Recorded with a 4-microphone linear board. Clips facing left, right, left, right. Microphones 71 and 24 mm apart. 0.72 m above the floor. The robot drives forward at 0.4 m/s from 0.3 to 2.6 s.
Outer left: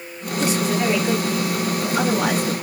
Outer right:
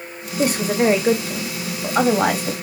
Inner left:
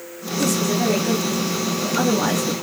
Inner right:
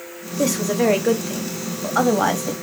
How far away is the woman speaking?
About 0.9 m.